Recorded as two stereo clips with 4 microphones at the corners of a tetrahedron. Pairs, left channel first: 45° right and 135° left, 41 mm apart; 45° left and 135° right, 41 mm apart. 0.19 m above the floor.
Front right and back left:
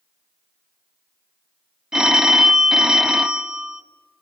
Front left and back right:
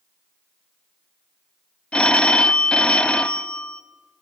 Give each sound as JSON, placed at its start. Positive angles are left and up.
{"t": 1.9, "sound": "a phone ringing", "azimuth_deg": 85, "distance_m": 0.6}